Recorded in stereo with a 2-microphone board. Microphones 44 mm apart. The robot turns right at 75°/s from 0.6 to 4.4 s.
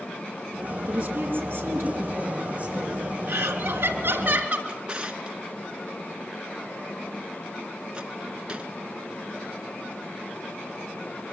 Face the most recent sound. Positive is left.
turn(degrees=-20)  # may be behind; listen again after turning